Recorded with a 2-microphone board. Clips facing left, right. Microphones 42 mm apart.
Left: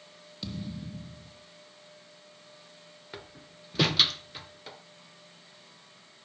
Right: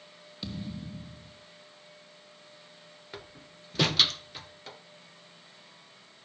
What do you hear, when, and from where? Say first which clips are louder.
0.4 s a thud: even; 5° right (ahead or behind), 2.5 m
3.1 s a door slam: even; 5° left (ahead or behind), 1.6 m